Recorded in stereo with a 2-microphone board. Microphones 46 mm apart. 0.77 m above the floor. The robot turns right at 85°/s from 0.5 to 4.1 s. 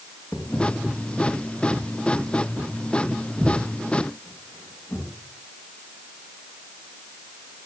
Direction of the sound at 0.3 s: 50° left (ahead or behind).